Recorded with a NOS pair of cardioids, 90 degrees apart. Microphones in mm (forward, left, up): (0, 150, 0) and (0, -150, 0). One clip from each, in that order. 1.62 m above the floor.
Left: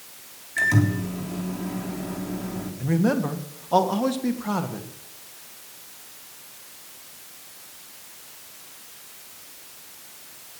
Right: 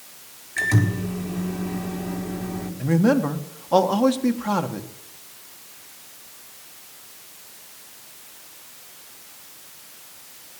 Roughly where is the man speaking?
Ahead.